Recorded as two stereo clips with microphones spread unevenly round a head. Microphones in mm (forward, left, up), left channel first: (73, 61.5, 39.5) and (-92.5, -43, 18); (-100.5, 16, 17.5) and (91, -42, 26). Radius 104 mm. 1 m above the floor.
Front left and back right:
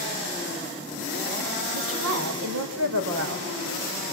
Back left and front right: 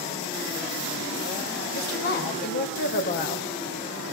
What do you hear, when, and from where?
1.7 s a woman speaking: 155° right, 4.5 m